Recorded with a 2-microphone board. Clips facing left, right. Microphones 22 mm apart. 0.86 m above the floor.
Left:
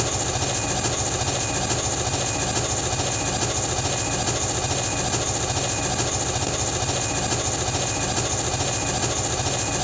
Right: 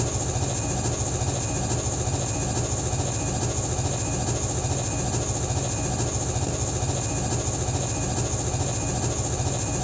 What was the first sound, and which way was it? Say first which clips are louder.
An engine running: left 4 dB; 55° left (ahead or behind).